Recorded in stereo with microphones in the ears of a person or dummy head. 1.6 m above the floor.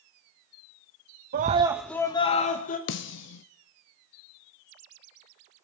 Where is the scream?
45° right (ahead or behind), 0.6 m; by 2.8 s 45° left (ahead or behind), 1.3 m.